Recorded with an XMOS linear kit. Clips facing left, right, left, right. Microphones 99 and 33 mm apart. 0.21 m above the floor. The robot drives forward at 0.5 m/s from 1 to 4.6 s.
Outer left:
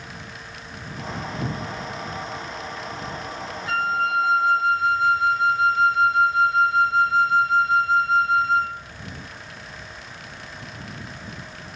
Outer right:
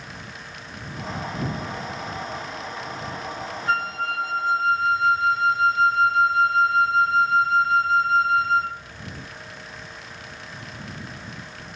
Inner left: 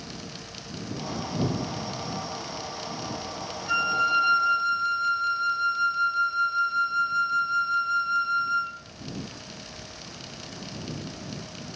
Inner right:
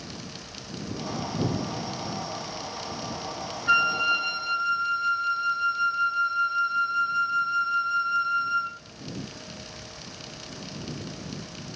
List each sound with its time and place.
3.7 s a flute: 40° right (ahead or behind), 0.6 m; by 8.8 s 30° right (ahead or behind), 0.8 m